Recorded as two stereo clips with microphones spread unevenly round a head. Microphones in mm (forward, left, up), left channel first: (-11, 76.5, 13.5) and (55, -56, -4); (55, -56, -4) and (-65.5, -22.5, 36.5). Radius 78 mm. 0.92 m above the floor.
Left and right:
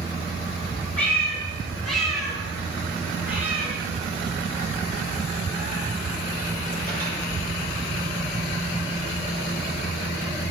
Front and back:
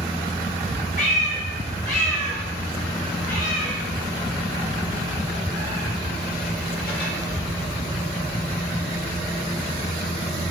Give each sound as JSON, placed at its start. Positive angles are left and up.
{"t": 1.0, "sound": "a cat meowing", "azimuth_deg": 40, "distance_m": 3.0}